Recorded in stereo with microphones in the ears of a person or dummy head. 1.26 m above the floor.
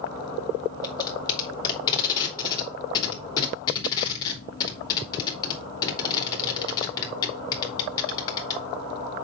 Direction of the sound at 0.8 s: 20° left (ahead or behind).